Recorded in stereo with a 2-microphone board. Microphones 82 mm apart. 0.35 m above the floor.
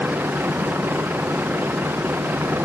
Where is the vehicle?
25° right (ahead or behind).